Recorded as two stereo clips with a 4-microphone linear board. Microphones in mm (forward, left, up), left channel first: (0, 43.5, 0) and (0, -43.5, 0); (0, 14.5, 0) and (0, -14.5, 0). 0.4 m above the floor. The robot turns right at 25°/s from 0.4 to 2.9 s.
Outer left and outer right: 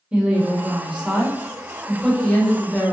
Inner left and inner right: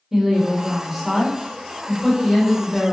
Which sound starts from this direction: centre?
A woman speaking, at 0.1 s.